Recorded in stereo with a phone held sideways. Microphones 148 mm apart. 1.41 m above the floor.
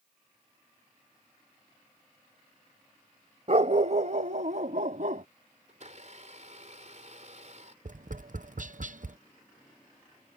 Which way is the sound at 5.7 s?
55° right (ahead or behind).